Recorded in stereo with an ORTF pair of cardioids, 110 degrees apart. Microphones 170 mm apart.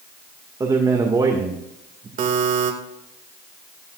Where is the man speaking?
25° right, 2 m.